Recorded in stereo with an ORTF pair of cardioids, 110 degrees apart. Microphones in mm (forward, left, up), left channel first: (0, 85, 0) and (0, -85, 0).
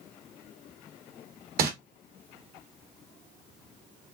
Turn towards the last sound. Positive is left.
turn(degrees=-60)